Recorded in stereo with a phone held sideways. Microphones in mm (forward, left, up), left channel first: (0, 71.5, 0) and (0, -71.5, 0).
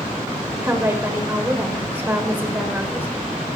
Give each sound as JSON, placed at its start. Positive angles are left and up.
{"t": 0.6, "sound": "a woman speaking", "side_deg": -15, "distance_m": 3.5}